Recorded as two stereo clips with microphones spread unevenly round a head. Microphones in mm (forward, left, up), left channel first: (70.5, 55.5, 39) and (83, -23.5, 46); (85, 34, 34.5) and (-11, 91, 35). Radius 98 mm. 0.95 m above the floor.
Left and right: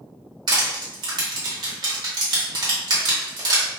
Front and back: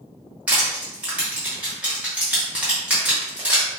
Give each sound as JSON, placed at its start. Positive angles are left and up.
{"t": 0.5, "sound": "crushing", "azimuth_deg": -130, "distance_m": 0.6}